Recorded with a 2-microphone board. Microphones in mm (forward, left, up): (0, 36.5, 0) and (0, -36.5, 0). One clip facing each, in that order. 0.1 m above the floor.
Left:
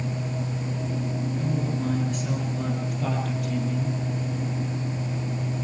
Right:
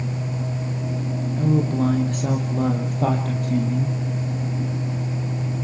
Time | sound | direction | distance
1.4 | a woman speaking | 60° right (ahead or behind) | 3.5 m